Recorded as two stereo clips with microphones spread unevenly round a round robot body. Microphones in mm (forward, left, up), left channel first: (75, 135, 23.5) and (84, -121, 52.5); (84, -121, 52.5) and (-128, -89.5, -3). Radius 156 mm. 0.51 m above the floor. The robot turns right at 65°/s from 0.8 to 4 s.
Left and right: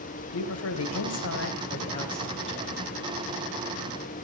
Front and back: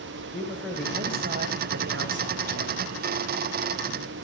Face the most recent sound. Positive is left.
turn(degrees=-65)